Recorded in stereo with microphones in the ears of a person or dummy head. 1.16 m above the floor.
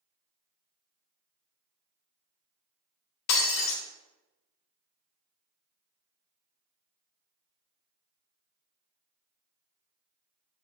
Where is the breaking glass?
60° left (ahead or behind), 1.4 m.